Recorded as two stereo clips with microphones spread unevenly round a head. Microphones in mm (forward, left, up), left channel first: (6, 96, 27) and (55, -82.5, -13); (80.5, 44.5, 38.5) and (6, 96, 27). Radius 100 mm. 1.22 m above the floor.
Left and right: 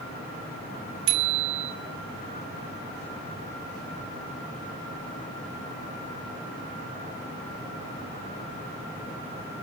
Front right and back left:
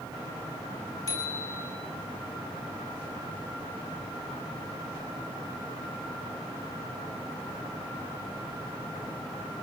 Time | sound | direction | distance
1.1 | a bicycle bell | 105° right | 2.5 m